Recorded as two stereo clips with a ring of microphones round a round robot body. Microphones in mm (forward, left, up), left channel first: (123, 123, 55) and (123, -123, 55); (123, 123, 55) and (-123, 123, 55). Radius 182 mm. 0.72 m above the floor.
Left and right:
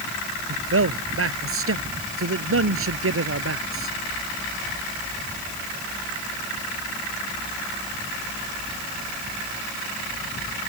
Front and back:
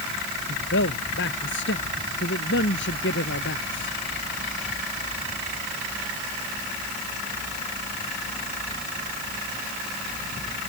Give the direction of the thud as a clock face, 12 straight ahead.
No thud in this recording.